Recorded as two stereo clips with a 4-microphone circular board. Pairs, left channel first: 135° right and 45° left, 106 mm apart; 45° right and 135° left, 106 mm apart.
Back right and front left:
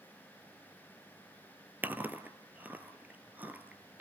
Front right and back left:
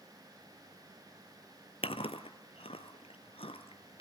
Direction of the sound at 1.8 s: 30° right.